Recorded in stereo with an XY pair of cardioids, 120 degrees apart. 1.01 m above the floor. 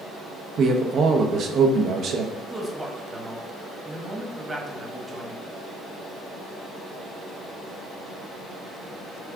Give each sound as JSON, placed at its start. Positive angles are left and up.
{"t": 0.6, "sound": "a man speaking", "azimuth_deg": -55, "distance_m": 0.8}
{"t": 2.3, "sound": "a man speaking", "azimuth_deg": -20, "distance_m": 1.2}